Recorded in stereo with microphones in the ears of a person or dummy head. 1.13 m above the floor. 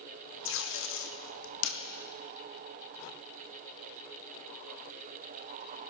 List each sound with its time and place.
0.5 s tape being pulled: 60° left (ahead or behind), 1.7 m